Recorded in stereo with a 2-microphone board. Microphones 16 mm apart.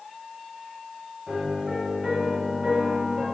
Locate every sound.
1.3 s a piano: 35° right (ahead or behind), 1.7 m